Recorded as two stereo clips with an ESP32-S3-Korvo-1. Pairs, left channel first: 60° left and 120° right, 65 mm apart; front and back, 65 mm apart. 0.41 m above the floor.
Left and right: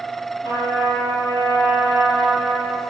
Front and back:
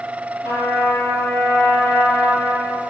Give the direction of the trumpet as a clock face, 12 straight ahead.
10 o'clock.